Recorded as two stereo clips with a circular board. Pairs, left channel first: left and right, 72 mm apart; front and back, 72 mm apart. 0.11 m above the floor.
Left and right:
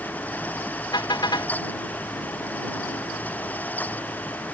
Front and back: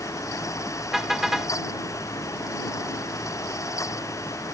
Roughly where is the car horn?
Left.